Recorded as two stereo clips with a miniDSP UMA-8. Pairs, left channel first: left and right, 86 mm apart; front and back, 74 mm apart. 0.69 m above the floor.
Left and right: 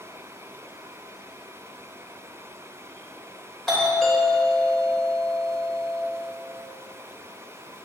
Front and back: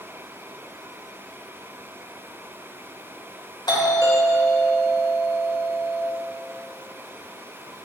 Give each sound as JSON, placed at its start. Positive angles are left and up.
{"t": 3.7, "sound": "a doorbell", "azimuth_deg": 5, "distance_m": 3.0}